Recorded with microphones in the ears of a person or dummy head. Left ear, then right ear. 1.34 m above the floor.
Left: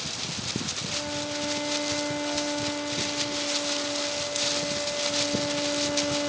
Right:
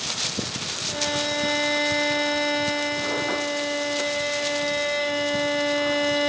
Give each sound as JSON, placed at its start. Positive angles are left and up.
{"t": 0.9, "sound": "a violin", "side_deg": -80}